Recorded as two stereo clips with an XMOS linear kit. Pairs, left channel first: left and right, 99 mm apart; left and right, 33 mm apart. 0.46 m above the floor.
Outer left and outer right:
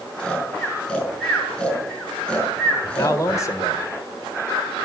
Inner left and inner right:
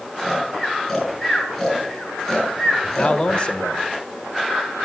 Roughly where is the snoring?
Centre.